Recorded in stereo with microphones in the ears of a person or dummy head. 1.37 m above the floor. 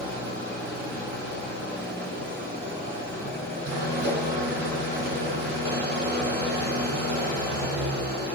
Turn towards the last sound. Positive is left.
turn(degrees=-60)  # may be behind; listen again after turning